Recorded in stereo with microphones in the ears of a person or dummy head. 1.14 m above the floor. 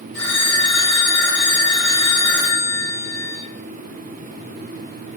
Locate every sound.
0.1 s a phone ringing: 80° right, 1.8 m